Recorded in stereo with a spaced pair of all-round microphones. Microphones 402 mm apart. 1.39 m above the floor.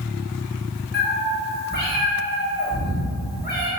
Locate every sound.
0.9 s a cat meowing: 25° left (ahead or behind), 0.9 m